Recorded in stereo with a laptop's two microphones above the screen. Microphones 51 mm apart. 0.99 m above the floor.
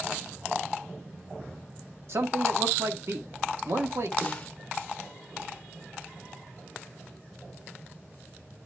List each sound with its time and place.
2.1 s a man speaking: 65° right (ahead or behind), 1.5 m
4.2 s a snare drum: 25° left (ahead or behind), 1.0 m